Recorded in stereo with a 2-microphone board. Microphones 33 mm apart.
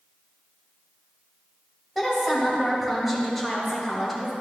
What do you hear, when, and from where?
1.9 s a woman speaking: 5° left (ahead or behind), 2 m